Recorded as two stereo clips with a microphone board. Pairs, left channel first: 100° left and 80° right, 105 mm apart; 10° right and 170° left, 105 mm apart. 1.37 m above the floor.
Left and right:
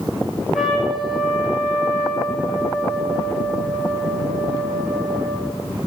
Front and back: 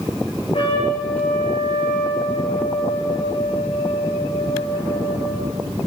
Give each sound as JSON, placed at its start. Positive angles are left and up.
{"t": 0.5, "sound": "a trumpet", "azimuth_deg": 10, "distance_m": 4.5}